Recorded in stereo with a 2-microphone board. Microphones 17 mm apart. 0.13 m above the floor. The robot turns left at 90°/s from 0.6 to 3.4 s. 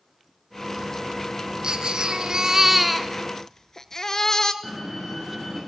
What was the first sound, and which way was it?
A baby crying, 65° right.